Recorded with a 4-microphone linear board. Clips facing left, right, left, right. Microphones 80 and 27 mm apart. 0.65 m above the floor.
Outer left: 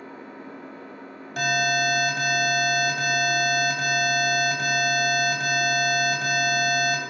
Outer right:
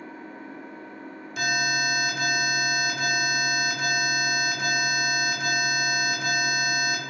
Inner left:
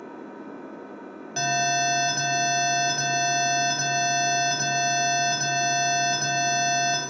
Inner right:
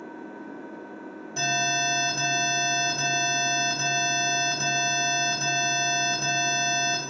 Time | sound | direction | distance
0.0 | an engine running | 75° left (ahead or behind) | 2 m
1.4 | an alarm | 55° left (ahead or behind) | 3 m